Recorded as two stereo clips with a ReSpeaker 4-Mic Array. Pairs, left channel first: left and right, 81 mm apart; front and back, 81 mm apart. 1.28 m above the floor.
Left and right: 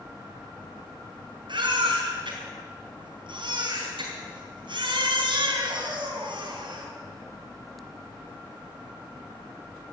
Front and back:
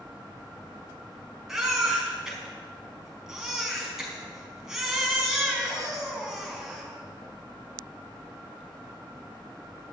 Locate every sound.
1.5 s a baby crying: 95° right, 4.5 m